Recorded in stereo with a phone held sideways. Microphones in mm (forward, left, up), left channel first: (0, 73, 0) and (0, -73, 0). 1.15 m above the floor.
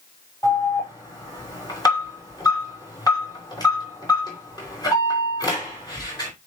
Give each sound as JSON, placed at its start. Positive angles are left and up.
{"t": 0.4, "sound": "an alarm", "side_deg": 30, "distance_m": 4.0}